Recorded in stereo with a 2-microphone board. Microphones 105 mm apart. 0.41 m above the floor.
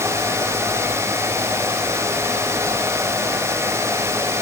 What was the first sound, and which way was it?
Only background noise.